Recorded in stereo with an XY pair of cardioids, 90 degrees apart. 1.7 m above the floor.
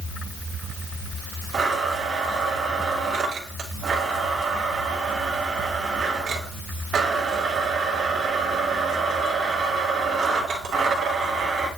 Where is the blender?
65° right, 2.5 m.